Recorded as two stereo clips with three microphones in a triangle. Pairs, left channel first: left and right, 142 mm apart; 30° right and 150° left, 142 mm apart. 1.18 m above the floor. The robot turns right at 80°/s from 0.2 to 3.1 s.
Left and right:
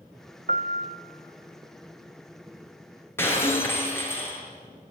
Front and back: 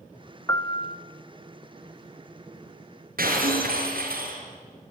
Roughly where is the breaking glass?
Behind.